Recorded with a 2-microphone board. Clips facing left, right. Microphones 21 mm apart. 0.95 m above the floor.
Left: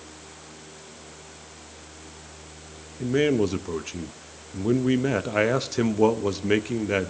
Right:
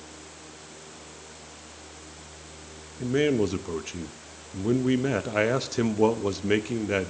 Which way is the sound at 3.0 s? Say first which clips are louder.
Left 2 dB; 5° left (ahead or behind).